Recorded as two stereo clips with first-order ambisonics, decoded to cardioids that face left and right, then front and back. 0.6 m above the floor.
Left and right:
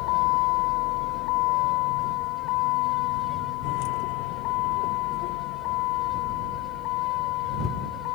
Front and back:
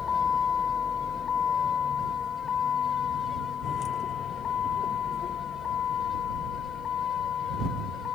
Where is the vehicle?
70° left; by 8.1 s 60° left.